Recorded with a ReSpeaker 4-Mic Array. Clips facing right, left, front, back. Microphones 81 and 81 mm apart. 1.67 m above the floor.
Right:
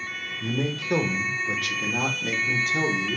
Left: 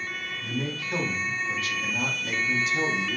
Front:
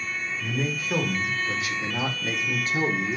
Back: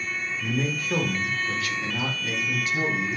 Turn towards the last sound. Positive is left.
turn(degrees=-40)